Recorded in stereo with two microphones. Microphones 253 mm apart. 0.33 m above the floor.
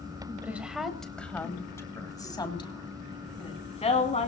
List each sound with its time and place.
0.4 s a woman speaking: 5° right (ahead or behind), 1.7 m; by 4.3 s 25° left (ahead or behind), 3.5 m